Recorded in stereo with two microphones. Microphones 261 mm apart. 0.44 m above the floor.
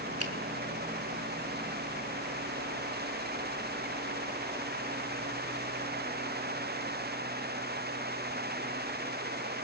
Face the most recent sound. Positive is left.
turn(degrees=-65)  # may be behind; listen again after turning